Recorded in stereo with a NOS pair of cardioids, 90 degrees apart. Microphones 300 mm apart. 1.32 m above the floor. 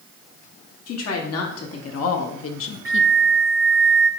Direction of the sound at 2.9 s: 45° right.